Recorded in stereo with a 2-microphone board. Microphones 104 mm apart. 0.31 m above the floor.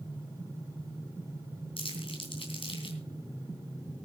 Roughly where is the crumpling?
Left.